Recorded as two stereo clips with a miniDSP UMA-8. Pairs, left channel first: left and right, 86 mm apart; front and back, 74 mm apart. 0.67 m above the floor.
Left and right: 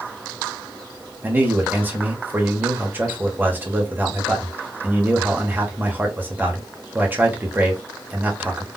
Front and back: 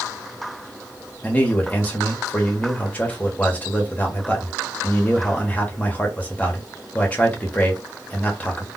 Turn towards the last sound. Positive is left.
turn(degrees=-50)